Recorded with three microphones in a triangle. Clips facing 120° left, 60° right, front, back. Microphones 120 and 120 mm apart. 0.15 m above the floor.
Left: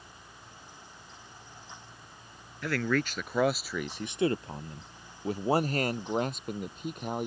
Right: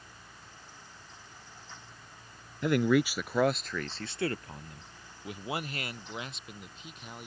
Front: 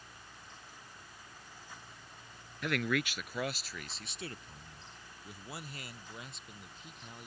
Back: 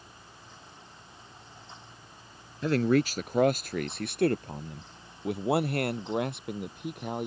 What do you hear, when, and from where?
2.6 s a man speaking: 125° right; by 7.3 s 155° left